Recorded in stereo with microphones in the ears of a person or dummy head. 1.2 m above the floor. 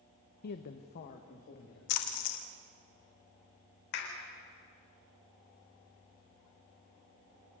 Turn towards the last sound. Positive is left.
turn(degrees=60)  # may be behind; listen again after turning